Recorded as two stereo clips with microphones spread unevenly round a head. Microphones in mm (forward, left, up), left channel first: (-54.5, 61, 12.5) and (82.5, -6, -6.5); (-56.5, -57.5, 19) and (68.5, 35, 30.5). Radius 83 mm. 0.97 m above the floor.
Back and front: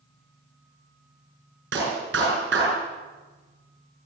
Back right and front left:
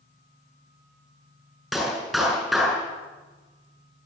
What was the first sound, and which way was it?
A clap, 55° right.